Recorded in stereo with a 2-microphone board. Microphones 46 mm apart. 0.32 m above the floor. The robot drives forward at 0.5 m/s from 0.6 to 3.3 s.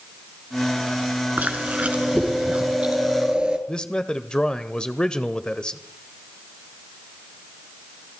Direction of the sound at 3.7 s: 15° left (ahead or behind).